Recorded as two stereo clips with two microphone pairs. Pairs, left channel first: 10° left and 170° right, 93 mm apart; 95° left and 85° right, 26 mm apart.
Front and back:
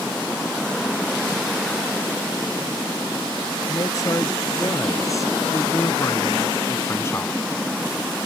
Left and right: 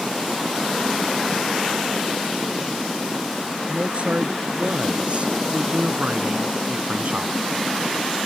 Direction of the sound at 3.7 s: 45° right.